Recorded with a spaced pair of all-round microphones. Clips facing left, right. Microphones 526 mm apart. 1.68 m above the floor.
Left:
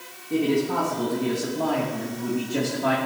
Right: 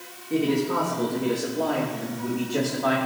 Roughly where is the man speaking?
Centre.